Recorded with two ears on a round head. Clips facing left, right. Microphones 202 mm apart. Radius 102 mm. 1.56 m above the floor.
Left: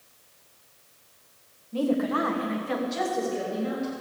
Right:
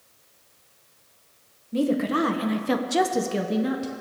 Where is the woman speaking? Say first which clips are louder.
Right 2 dB; 30° right (ahead or behind), 1.4 m; by 3.9 s 60° right (ahead or behind), 1.2 m.